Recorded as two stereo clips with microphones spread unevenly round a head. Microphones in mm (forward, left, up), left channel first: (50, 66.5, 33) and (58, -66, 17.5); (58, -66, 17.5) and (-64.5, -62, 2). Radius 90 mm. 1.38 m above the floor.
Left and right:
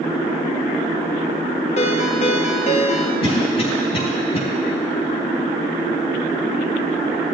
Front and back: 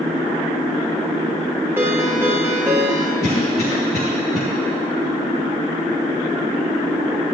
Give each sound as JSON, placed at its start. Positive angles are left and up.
{"t": 1.8, "sound": "a ringtone", "azimuth_deg": 100, "distance_m": 0.5}
{"t": 3.2, "sound": "a cough", "azimuth_deg": 45, "distance_m": 1.1}